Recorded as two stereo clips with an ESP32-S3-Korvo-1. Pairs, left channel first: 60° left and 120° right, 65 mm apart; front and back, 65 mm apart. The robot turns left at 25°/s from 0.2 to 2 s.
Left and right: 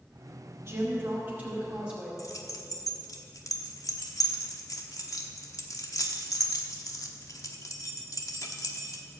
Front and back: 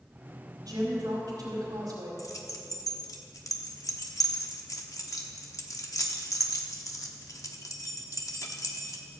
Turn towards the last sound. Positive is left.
turn(degrees=30)